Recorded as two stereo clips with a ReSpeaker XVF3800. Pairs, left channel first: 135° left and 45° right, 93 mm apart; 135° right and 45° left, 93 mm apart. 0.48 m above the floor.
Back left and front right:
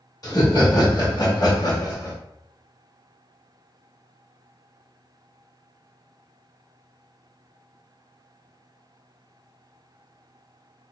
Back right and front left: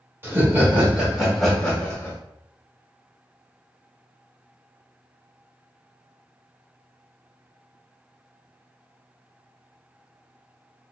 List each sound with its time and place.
0.2 s laughter: 105° left, 1.4 m; by 2.2 s 165° left, 1.1 m